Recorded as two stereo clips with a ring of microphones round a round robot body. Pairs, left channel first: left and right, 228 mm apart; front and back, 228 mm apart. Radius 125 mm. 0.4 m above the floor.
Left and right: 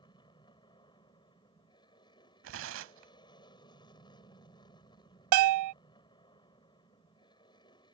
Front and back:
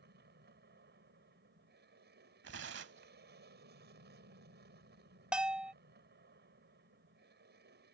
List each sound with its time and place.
0.0 s an aircraft: 155° left
2.4 s tearing paper: 130° right
5.3 s a bell: 95° right